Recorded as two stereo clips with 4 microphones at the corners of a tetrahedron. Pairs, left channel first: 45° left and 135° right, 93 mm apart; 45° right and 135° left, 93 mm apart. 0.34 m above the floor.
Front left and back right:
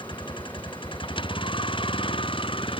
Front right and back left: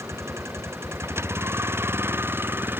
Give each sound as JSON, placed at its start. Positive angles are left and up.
{"t": 0.0, "sound": "a vehicle", "azimuth_deg": 75}